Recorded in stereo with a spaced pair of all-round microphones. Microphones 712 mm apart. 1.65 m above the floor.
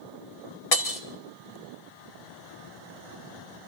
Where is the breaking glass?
50° left (ahead or behind), 1.2 m.